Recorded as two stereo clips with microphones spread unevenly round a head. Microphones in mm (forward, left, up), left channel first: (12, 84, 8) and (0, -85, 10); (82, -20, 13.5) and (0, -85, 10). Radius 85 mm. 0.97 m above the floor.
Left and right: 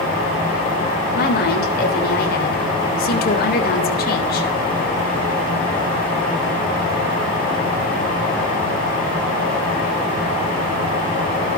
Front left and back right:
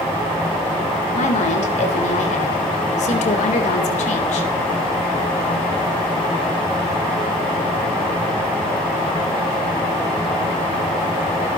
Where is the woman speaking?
50° left, 3.5 m.